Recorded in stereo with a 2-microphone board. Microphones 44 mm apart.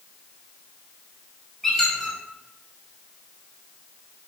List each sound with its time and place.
1.6 s a squeak: 5° left (ahead or behind), 0.9 m